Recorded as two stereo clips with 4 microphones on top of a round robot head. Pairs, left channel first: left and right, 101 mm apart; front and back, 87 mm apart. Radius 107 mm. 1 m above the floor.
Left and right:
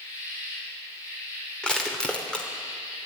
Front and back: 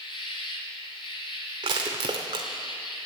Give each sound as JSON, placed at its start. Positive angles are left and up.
{"t": 0.0, "sound": "an insect", "azimuth_deg": 20, "distance_m": 1.6}
{"t": 1.6, "sound": "crushing", "azimuth_deg": 170, "distance_m": 0.8}